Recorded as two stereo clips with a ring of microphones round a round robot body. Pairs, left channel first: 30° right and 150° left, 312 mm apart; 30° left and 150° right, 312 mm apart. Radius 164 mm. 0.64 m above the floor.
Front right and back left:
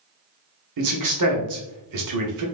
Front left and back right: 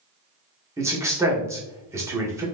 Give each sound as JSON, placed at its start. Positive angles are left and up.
{"t": 0.8, "sound": "a man speaking", "azimuth_deg": 130, "distance_m": 1.5}